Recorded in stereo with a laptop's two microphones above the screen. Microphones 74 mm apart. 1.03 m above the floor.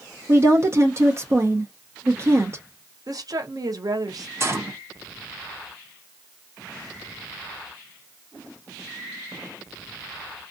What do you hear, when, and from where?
0.3 s a woman speaking: 35° right (ahead or behind), 0.6 m
3.1 s a woman speaking: 55° right (ahead or behind), 0.7 m
4.4 s a gunshot: 35° right (ahead or behind), 0.7 m